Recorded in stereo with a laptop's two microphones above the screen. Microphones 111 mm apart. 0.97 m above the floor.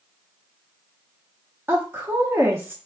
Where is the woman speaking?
20° right (ahead or behind), 0.8 m.